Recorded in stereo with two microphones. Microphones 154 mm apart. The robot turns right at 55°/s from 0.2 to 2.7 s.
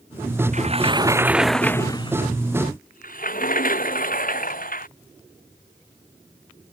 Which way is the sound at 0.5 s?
55° right.